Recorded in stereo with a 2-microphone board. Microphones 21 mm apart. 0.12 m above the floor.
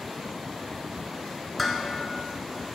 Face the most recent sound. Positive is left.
turn(degrees=0)  # may be behind; listen again after turning